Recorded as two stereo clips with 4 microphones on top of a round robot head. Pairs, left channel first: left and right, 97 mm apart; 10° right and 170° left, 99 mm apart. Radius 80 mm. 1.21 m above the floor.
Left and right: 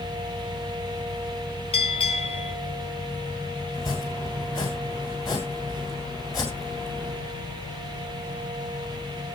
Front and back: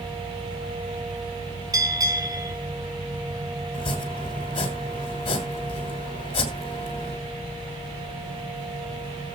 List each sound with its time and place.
1.7 s a bell: 115° left, 4.5 m
3.7 s chopping: 30° left, 3 m